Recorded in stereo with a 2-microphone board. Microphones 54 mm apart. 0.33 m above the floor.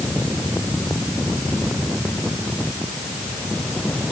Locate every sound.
Only background noise.